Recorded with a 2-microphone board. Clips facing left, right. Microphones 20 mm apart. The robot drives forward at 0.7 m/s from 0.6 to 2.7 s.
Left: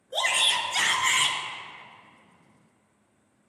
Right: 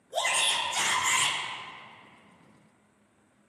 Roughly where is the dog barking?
I don't hear a dog barking.